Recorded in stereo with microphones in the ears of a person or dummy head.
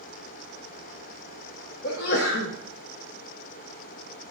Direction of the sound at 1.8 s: 65° left (ahead or behind).